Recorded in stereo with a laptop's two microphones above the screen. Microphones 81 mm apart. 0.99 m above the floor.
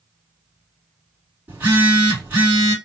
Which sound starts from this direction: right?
A phone buzzing, at 1.5 s.